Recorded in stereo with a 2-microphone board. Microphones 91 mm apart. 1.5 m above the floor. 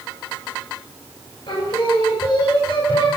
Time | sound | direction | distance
1.5 | singing | 70° left (ahead or behind) | 3.5 m